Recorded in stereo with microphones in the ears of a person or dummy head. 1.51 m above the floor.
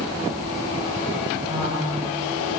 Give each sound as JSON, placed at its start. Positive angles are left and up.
{"t": 1.5, "sound": "a woman speaking", "side_deg": -25, "distance_m": 5.0}